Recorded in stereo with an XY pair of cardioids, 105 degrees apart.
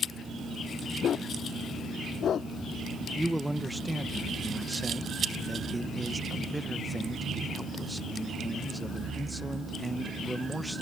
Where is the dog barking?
55° left.